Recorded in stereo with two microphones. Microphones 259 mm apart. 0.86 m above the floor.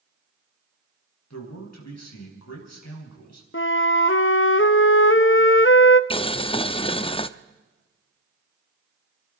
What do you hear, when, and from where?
1.3 s a man speaking: 85° left, 5 m
3.5 s a flute: 50° left (ahead or behind), 0.7 m
6.1 s boiling: 20° left (ahead or behind), 0.5 m